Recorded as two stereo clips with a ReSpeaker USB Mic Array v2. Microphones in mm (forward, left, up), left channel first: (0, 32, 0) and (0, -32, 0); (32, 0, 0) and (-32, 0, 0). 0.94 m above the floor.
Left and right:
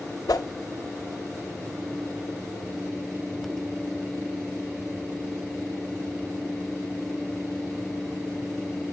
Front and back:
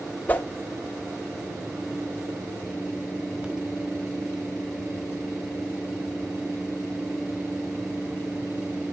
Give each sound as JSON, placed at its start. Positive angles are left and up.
{"t": 0.3, "sound": "a whoosh", "azimuth_deg": 65, "distance_m": 0.6}